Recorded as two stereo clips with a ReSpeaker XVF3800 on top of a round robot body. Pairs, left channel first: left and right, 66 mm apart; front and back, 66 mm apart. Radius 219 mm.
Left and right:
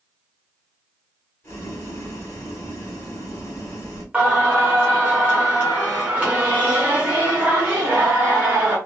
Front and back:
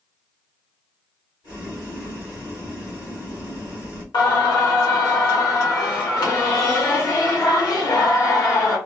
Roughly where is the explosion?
I don't hear an explosion.